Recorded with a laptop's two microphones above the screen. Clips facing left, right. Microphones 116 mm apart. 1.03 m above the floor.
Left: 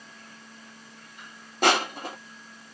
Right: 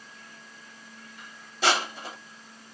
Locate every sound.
1.6 s crushing: 50° left (ahead or behind), 1.0 m